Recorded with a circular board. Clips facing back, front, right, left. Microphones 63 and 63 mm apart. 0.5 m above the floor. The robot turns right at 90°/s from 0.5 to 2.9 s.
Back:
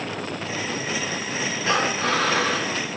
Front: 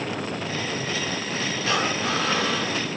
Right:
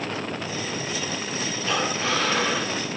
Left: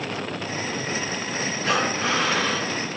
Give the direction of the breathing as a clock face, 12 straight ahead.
8 o'clock.